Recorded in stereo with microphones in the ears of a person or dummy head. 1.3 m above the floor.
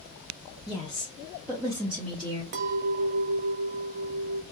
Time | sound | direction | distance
0.7 | a woman speaking | 25° left (ahead or behind) | 0.6 m
2.5 | a clink | 50° right (ahead or behind) | 0.6 m